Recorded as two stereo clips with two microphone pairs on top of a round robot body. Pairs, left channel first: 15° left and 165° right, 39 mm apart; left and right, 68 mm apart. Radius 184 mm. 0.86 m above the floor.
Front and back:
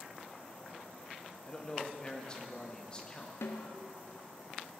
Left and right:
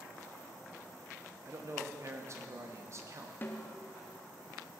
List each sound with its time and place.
1.4 s a man speaking: 55° right, 1.9 m
3.4 s a snare drum: 30° left, 0.8 m